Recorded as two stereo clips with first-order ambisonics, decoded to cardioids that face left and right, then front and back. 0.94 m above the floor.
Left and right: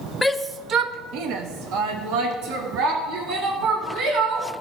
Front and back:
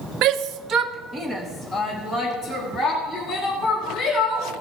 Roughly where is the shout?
Behind.